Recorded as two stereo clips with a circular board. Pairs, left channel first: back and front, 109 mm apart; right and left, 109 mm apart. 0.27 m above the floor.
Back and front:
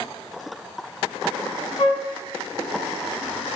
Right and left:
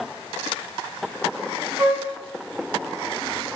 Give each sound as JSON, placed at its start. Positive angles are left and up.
{"t": 1.8, "sound": "a flute", "azimuth_deg": 150, "distance_m": 1.3}